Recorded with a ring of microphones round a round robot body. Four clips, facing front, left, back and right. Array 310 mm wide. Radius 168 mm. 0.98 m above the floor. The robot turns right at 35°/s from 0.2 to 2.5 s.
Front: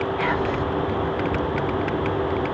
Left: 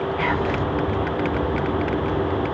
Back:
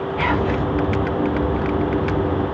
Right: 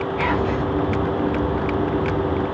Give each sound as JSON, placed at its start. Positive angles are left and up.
{"t": 0.2, "sound": "whispering", "azimuth_deg": 180, "distance_m": 1.1}